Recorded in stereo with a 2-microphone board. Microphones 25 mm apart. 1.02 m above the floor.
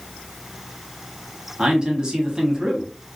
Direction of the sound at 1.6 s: 30° right (ahead or behind).